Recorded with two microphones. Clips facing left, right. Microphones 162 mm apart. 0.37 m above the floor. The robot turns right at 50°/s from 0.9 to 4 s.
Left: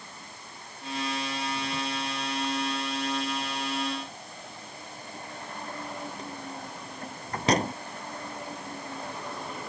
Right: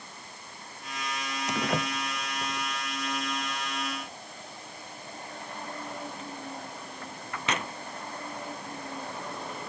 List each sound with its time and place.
1.5 s a door slam: 90° right; by 7.7 s 40° left (ahead or behind)